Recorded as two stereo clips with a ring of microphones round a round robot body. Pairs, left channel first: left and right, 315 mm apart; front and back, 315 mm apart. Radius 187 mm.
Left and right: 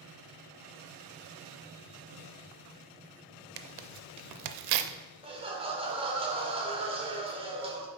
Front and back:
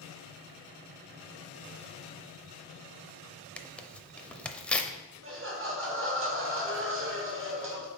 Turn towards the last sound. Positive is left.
turn(degrees=-155)